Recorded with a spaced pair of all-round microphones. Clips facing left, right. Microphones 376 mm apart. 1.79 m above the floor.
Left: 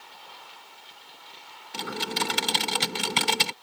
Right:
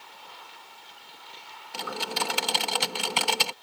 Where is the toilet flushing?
I don't hear a toilet flushing.